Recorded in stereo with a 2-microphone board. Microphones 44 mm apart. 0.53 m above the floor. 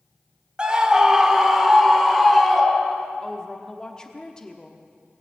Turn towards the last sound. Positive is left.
turn(degrees=15)  # may be behind; listen again after turning